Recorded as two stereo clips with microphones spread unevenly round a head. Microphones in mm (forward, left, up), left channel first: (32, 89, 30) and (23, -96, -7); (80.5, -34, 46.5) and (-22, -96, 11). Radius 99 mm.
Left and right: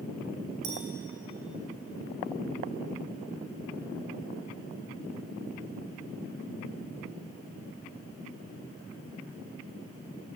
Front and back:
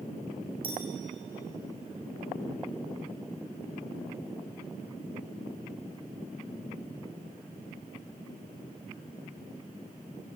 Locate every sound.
0.6 s a clink: 105° right, 7 m